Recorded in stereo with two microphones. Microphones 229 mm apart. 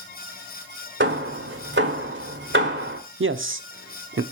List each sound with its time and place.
1.0 s hammering: 55° right (ahead or behind), 1.6 m
3.2 s a man speaking: 60° right (ahead or behind), 0.6 m